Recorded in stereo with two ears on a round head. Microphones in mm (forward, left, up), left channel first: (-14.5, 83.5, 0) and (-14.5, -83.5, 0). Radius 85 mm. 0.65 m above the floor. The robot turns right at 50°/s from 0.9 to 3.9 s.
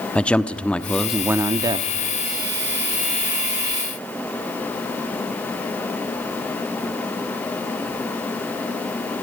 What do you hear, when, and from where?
0.1 s a man speaking: 170° left, 0.9 m; by 1.9 s 140° right, 0.9 m